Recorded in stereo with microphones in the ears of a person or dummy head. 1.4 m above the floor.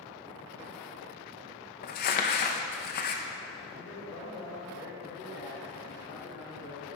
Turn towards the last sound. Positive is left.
turn(degrees=85)